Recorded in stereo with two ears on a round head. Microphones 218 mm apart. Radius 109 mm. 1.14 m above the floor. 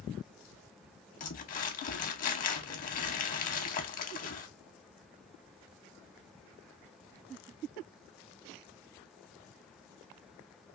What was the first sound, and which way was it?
Crumpling, 35° left (ahead or behind).